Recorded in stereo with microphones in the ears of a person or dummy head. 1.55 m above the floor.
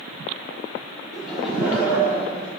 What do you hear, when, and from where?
1.1 s laughter: 5° left (ahead or behind), 4.5 m; by 2.5 s 15° right (ahead or behind), 4.5 m